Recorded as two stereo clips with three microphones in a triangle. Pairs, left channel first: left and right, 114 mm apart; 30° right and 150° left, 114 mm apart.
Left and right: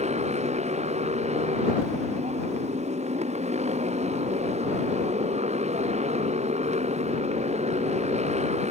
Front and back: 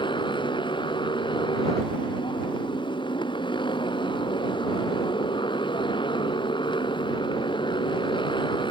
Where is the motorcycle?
75° right.